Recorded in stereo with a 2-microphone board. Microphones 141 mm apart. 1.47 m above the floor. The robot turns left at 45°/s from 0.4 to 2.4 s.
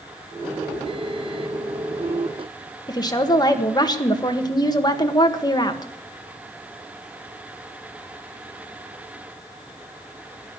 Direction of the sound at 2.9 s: 30° left (ahead or behind).